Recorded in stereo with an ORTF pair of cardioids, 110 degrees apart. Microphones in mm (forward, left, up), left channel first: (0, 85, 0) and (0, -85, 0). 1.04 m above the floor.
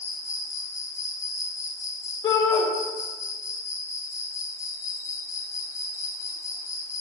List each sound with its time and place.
0.0 s an insect: 20° left, 0.8 m
2.2 s a shout: 20° left, 2.0 m